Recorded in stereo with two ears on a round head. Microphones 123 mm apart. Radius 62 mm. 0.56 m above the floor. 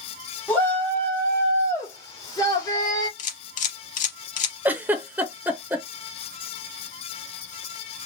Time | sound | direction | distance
0.5 | a shout | 15° left (ahead or behind) | 1.6 m
3.2 | a camera shutter | 55° left (ahead or behind) | 0.8 m
4.7 | a giggle | 15° right (ahead or behind) | 0.6 m